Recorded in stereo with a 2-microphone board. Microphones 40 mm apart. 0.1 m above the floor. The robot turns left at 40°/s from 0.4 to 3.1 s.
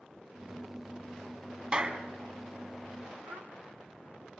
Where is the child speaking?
70° right (ahead or behind), 2.5 m.